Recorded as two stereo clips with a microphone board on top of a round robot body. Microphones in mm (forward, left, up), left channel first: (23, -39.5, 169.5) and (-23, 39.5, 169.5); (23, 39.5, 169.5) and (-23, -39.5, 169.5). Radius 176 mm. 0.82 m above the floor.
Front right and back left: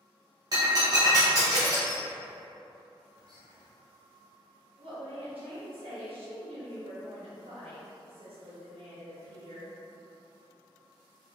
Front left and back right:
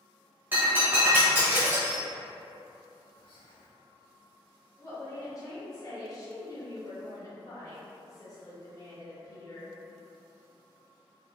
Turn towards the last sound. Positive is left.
turn(degrees=115)